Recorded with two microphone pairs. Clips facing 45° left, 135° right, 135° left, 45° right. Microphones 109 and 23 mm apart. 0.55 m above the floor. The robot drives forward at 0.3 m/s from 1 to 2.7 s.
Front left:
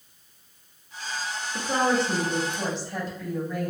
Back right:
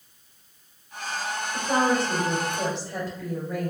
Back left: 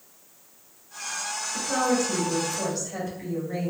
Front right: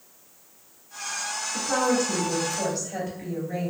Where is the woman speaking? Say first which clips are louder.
Back right 1 dB, front right 1 dB; 125° right, 1.9 m; by 3.7 s 135° right, 2 m.